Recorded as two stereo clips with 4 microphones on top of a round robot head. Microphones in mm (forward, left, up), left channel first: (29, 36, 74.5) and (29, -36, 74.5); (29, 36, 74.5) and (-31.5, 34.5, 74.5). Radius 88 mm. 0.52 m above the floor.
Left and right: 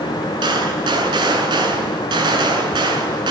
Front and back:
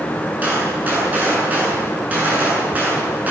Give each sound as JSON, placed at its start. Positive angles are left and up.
{"t": 0.4, "sound": "a gunshot", "azimuth_deg": -110, "distance_m": 8.0}